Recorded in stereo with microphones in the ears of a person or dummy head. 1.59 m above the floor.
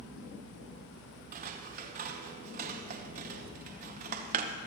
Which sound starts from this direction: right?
Scissors, at 1.3 s.